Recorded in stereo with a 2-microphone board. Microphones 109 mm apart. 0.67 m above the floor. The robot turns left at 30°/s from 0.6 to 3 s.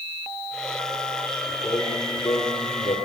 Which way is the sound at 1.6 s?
130° left.